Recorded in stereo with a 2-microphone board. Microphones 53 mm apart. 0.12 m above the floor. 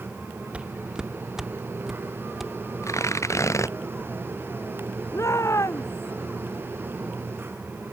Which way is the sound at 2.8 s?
70° left (ahead or behind).